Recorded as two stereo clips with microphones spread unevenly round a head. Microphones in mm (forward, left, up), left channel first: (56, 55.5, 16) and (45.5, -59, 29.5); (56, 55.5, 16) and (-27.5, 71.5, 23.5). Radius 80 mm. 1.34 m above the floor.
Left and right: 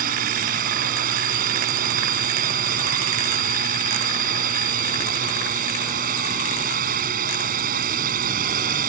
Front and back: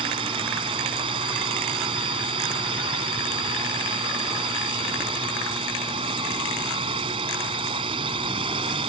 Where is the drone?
130° right.